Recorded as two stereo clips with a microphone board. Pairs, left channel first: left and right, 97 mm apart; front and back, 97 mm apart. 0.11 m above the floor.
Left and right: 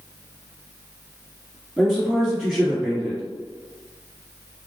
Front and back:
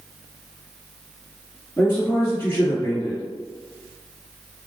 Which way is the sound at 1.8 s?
5° right.